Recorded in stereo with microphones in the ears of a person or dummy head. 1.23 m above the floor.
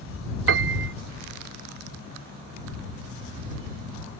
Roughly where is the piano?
Right.